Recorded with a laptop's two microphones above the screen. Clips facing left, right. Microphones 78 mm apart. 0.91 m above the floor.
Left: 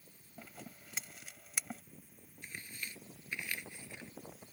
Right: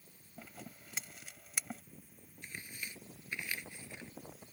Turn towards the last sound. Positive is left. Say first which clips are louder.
# even
turn(degrees=-10)  # may be behind; listen again after turning